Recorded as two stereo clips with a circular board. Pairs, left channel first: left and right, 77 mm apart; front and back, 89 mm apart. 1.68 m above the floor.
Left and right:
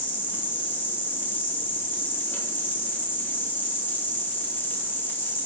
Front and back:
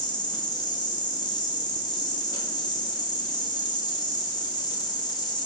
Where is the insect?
30° left, 1.0 m.